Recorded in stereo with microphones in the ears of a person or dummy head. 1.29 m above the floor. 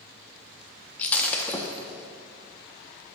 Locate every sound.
1.0 s breaking glass: 15° left (ahead or behind), 0.8 m